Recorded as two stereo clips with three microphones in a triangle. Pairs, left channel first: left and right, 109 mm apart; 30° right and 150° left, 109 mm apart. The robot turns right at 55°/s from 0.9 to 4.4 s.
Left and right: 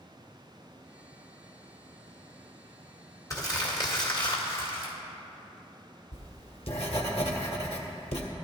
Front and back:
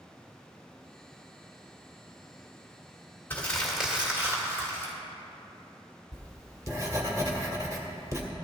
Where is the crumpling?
40° left, 2 m; by 4.9 s 100° left, 2 m.